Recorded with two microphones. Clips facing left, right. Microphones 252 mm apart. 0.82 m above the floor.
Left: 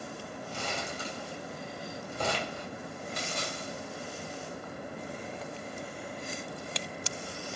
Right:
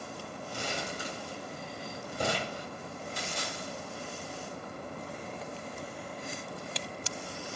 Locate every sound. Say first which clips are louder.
0.5 s crumpling: right 1 dB; 15° right (ahead or behind), 2.5 m
3.2 s a splash: left 1 dB; 70° left (ahead or behind), 2.5 m